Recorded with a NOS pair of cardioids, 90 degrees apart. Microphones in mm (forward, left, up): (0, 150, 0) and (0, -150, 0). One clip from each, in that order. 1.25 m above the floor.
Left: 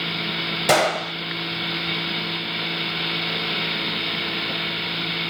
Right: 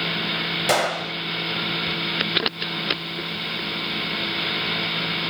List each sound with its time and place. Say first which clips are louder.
0.7 s a gunshot: left 4 dB; 15° left, 0.7 m